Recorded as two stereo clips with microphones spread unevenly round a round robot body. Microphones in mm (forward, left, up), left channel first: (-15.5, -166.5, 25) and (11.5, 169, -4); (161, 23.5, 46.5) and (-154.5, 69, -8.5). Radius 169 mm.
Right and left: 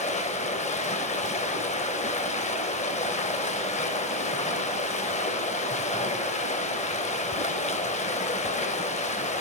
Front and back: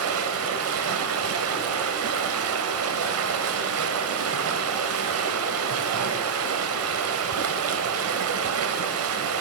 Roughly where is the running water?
Behind.